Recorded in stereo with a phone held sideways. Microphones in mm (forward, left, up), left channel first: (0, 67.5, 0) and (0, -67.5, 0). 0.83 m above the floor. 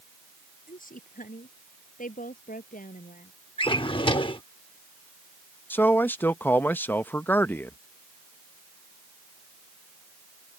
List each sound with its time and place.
0.7 s a woman speaking: 85° left
3.6 s a drawer: 40° left (ahead or behind)
5.7 s a man speaking: 15° left (ahead or behind)